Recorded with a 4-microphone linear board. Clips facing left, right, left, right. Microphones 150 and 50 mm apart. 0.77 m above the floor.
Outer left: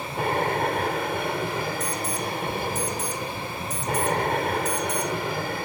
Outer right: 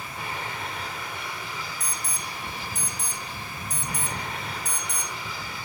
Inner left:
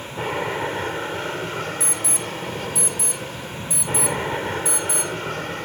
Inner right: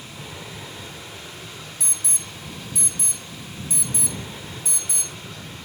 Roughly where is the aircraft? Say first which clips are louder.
Outer left 10 dB, inner left 12 dB; left.